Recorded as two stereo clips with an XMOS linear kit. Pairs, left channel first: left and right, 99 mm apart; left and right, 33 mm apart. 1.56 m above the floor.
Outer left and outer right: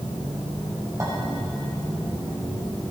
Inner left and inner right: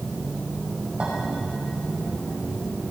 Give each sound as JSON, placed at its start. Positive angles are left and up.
{"t": 1.0, "sound": "a clink", "side_deg": -30, "distance_m": 5.5}